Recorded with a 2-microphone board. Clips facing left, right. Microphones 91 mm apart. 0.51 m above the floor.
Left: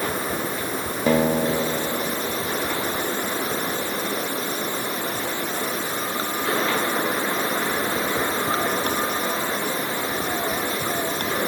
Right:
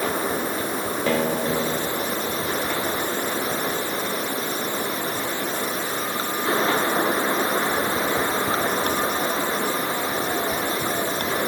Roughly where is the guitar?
Centre.